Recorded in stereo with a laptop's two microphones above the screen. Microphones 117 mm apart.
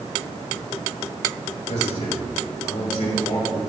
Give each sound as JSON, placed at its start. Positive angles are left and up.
{"t": 1.7, "sound": "a man speaking", "side_deg": 70, "distance_m": 3.5}